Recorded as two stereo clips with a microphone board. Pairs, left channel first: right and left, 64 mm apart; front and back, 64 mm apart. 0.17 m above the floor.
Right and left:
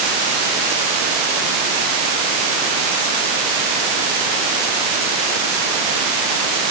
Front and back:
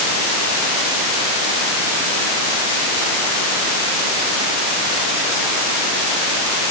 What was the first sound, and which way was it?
Only background noise.